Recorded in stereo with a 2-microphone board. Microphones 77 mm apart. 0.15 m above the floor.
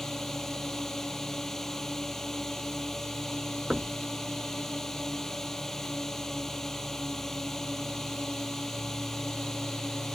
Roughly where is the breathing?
I don't hear breathing.